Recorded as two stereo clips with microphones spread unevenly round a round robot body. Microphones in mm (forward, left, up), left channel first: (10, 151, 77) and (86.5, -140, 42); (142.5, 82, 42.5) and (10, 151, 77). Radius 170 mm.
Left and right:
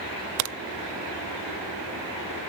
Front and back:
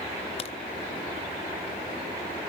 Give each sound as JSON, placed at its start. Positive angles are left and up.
{"t": 0.4, "sound": "a crack", "azimuth_deg": -65, "distance_m": 0.5}